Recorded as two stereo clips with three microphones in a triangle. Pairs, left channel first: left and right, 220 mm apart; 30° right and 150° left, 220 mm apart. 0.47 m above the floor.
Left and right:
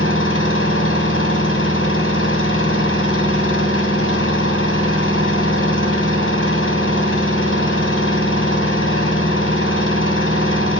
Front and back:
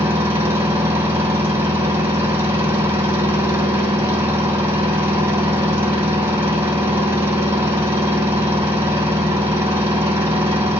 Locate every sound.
0.0 s an engine running: 70° left, 3 m